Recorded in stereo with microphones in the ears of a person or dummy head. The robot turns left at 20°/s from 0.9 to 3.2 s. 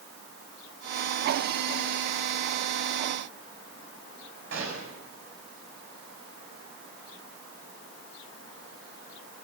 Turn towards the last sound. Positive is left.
turn(degrees=-60)  # may be behind; listen again after turning